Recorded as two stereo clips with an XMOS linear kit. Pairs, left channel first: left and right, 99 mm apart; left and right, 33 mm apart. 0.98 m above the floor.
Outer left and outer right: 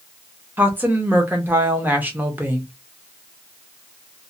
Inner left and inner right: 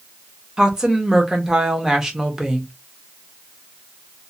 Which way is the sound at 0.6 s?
20° right (ahead or behind).